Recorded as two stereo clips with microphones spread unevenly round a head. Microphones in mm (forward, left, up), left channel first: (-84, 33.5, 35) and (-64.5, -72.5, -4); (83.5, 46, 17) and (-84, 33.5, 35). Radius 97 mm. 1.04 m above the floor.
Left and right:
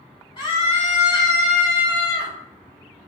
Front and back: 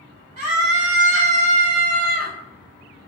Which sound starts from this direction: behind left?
A scream, at 0.4 s.